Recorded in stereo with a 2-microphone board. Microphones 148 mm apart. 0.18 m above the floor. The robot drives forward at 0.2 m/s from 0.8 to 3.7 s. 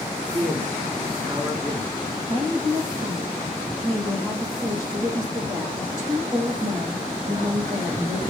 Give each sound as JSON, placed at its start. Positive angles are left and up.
{"t": 0.2, "sound": "a man speaking", "side_deg": -40, "distance_m": 2.0}
{"t": 2.3, "sound": "a woman speaking", "side_deg": -60, "distance_m": 6.5}